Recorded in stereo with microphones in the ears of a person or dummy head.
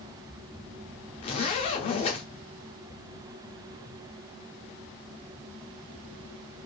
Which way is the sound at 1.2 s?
35° left (ahead or behind).